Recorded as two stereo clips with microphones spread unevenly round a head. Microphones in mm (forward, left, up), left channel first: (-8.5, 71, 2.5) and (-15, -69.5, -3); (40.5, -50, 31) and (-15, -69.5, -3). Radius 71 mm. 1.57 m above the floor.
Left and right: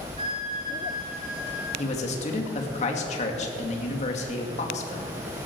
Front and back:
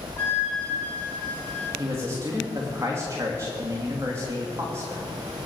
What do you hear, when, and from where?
0.2 s a flute: 40° right, 3 m
1.8 s a man speaking: 130° left, 2.5 m